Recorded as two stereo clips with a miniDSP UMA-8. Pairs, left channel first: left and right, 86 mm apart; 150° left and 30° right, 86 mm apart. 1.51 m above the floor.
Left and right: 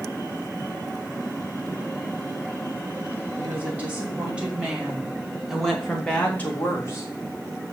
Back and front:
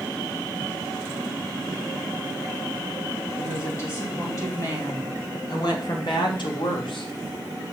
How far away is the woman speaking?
About 3.5 m.